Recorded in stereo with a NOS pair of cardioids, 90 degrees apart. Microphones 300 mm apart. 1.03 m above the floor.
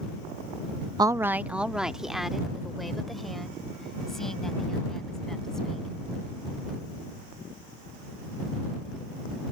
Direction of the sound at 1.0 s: 15° right.